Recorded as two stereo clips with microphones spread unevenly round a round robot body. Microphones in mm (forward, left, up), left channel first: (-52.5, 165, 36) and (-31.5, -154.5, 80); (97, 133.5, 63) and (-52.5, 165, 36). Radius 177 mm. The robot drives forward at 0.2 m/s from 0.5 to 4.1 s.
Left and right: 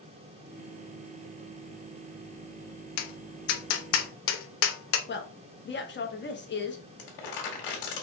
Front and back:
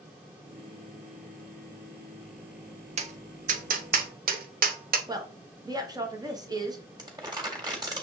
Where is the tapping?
125° left, 0.5 m; by 5.0 s 145° left, 0.7 m.